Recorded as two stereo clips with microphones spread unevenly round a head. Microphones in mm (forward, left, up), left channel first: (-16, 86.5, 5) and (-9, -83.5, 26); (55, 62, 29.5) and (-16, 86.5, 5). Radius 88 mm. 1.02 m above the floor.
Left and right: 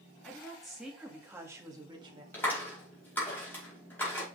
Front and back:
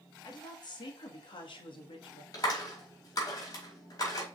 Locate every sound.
0.2 s a woman speaking: 10° left, 2 m; by 2.2 s 25° right, 1.9 m
2.3 s a clap: 10° left, 4.5 m